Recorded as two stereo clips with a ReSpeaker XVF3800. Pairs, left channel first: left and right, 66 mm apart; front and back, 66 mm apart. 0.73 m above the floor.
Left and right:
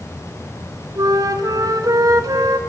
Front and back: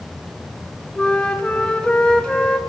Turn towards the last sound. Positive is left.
turn(degrees=-75)